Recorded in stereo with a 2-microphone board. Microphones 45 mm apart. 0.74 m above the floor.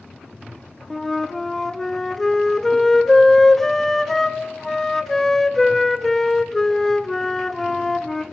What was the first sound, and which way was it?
A flute, 10° left (ahead or behind).